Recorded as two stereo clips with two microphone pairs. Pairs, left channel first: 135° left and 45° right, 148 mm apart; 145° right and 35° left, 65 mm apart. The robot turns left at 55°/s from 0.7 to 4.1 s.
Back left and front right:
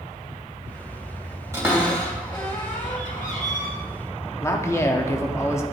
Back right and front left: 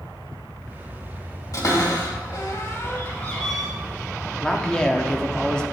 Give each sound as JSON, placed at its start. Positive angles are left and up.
{"t": 1.5, "sound": "a cupboard door", "azimuth_deg": -115, "distance_m": 2.5}
{"t": 4.4, "sound": "a man speaking", "azimuth_deg": 165, "distance_m": 0.7}